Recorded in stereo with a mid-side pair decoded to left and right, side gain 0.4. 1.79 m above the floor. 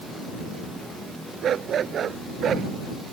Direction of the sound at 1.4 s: 60° right.